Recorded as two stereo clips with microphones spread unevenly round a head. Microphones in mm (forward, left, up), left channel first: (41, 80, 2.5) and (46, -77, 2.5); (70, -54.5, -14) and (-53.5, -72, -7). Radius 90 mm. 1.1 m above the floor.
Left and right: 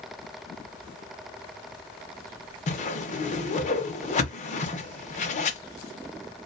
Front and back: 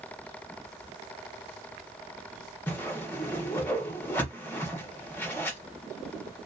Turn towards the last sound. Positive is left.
turn(degrees=80)